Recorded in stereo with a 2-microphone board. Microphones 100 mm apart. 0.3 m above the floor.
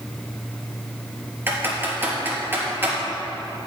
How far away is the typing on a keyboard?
About 3.5 m.